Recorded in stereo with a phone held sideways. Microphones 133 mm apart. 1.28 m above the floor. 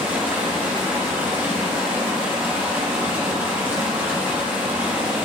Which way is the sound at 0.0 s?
15° right (ahead or behind).